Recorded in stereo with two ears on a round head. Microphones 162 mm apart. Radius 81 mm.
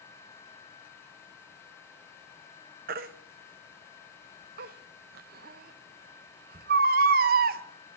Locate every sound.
2.9 s a baby crying: 55° right (ahead or behind), 0.7 m